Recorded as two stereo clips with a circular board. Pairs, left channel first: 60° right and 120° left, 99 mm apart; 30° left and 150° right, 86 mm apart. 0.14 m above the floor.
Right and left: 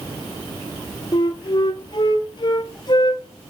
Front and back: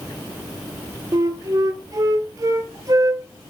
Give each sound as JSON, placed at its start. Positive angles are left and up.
{"t": 1.1, "sound": "a flute", "azimuth_deg": -100, "distance_m": 0.7}